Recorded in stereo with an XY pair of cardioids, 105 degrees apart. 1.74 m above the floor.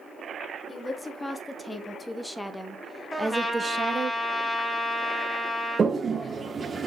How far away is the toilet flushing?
About 1.0 m.